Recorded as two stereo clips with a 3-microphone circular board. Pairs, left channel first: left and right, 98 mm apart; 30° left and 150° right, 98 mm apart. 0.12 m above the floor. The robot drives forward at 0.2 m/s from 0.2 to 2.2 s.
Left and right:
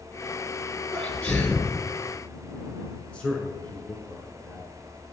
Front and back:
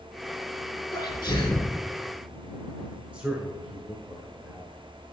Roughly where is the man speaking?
Behind left.